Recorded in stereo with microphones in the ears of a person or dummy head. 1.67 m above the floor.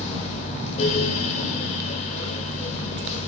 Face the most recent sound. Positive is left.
turn(degrees=40)  # may be behind; listen again after turning